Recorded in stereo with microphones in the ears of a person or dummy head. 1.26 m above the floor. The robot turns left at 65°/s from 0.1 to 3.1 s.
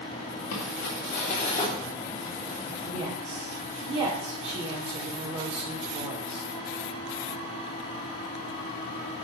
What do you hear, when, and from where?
0.5 s crumpling: 95° left, 3.5 m; by 1.7 s 20° left, 3.5 m
2.8 s a woman speaking: 50° right (ahead or behind), 4 m; by 6.5 s 30° right (ahead or behind), 4 m